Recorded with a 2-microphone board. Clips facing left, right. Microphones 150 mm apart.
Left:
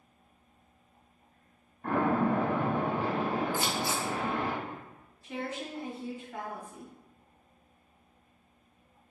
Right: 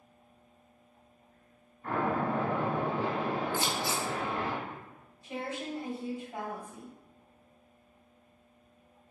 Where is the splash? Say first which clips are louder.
Left 3 dB; 65° left (ahead or behind), 1.0 m.